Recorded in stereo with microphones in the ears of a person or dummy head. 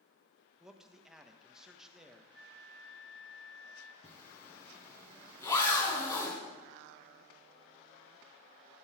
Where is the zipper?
20° left (ahead or behind), 2.5 m.